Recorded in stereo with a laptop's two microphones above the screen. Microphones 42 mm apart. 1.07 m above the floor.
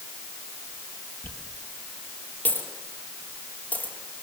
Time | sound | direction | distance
1.2 | a dropped coin | 40° left (ahead or behind) | 5 m